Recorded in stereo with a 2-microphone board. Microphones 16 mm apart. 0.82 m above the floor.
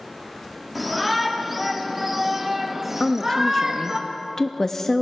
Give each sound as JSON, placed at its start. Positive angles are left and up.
{"t": 0.8, "sound": "a shout", "side_deg": -5, "distance_m": 2.0}
{"t": 3.0, "sound": "a woman speaking", "side_deg": 20, "distance_m": 0.8}